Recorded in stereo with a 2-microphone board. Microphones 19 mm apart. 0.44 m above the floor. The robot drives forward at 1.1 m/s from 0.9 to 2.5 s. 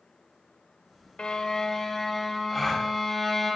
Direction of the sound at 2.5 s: 10° left (ahead or behind).